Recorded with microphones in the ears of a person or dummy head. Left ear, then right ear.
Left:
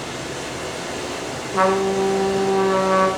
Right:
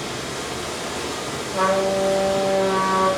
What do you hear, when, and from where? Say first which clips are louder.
0.0 s running water: even; 30° right (ahead or behind), 0.9 m
1.5 s a trumpet: left 1 dB; 50° left (ahead or behind), 0.8 m